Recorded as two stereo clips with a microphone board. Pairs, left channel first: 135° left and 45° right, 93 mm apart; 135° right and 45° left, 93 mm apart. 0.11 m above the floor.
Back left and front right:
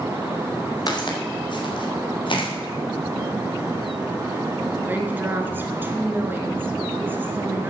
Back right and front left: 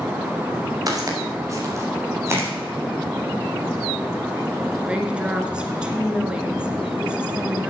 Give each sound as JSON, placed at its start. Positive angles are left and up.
{"t": 0.9, "sound": "footsteps", "azimuth_deg": 95, "distance_m": 3.5}
{"t": 2.3, "sound": "tapping", "azimuth_deg": -150, "distance_m": 3.5}
{"t": 4.9, "sound": "a woman speaking", "azimuth_deg": -20, "distance_m": 1.5}